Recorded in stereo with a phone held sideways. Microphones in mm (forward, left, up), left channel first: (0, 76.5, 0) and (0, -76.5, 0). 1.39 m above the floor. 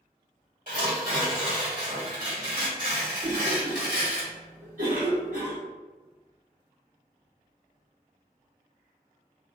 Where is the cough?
65° right (ahead or behind), 0.9 m.